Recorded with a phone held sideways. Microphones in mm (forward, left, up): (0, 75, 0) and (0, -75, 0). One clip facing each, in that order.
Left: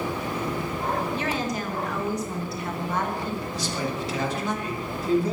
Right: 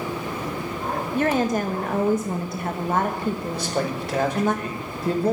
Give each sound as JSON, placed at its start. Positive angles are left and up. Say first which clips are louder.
{"t": 1.1, "sound": "a woman speaking", "louder": "right 7 dB", "side_deg": -50, "distance_m": 1.2}
{"t": 3.5, "sound": "a man speaking", "louder": "right 3 dB", "side_deg": -60, "distance_m": 5.0}